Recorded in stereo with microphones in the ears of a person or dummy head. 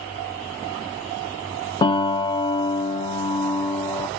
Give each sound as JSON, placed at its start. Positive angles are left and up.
{"t": 1.8, "sound": "a piano", "side_deg": 30, "distance_m": 0.7}